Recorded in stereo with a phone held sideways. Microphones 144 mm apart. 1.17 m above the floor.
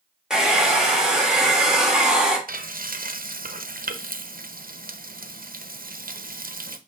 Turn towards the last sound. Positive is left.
turn(degrees=-80)